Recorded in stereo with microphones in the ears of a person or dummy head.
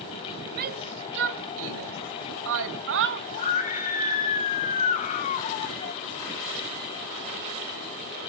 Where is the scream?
40° left (ahead or behind), 1.8 m.